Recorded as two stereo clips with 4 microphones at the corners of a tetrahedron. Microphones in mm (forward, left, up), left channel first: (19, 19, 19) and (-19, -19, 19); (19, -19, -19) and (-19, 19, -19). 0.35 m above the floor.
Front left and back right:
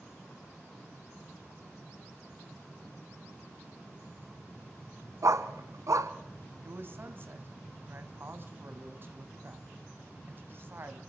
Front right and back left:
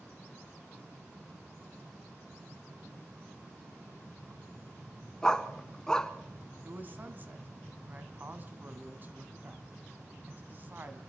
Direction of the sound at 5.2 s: 125° right.